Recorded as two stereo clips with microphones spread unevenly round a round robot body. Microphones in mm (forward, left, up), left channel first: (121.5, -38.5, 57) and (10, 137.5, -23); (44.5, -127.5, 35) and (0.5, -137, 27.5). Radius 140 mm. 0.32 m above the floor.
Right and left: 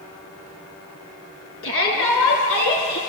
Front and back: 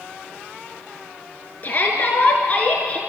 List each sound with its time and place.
1.6 s a shout: 35° right, 5 m; by 3.0 s 45° right, 4.5 m